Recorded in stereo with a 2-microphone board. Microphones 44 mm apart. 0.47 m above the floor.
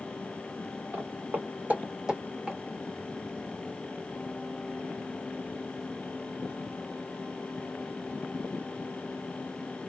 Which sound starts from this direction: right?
Footsteps, at 0.9 s.